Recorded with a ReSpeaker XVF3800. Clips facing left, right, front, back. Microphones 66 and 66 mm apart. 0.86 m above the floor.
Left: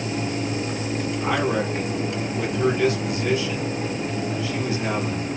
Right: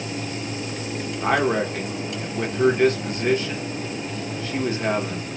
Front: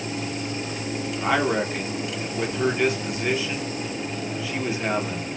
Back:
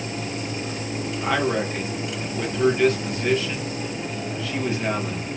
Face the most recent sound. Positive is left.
turn(degrees=-75)